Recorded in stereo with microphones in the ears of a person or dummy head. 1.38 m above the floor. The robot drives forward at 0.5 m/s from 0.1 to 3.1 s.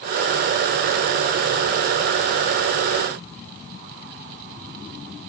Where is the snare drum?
I don't hear a snare drum.